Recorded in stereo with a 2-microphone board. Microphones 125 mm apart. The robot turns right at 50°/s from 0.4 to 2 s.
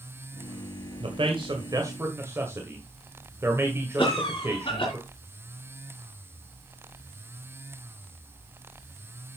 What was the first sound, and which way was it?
A man speaking, 45° right (ahead or behind).